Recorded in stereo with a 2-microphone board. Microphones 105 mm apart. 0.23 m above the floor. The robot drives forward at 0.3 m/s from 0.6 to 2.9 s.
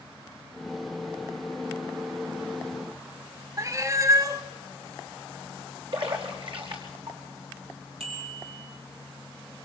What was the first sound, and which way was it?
A cat meowing, 30° right (ahead or behind).